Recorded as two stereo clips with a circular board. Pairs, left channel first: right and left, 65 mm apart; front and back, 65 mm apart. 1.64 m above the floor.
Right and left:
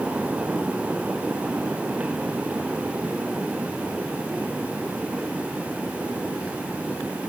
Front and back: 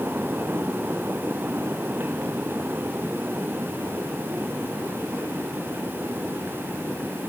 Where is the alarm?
I don't hear an alarm.